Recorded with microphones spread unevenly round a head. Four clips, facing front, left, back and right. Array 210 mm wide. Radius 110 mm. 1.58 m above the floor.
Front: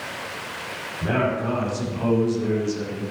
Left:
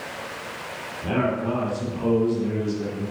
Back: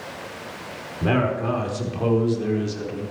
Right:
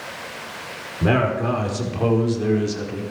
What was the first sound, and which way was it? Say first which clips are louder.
A man speaking: right 4 dB, back 1 dB; 105° right.